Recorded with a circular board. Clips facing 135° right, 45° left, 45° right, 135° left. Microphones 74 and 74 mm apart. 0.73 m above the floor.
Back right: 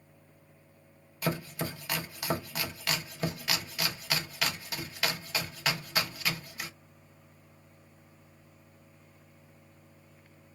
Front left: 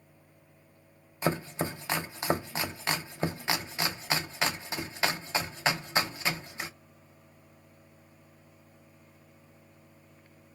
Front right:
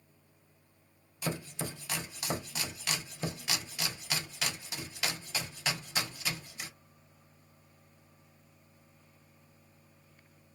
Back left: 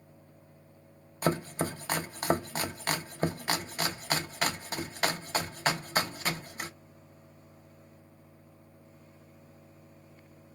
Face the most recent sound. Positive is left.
turn(degrees=100)